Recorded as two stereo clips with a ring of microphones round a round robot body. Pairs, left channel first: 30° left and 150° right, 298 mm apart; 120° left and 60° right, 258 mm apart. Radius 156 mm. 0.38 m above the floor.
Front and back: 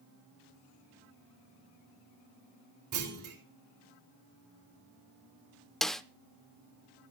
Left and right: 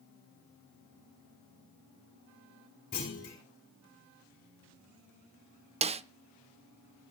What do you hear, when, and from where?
2.9 s a clunk: 175° right, 5 m
5.8 s a snare drum: 55° right, 0.6 m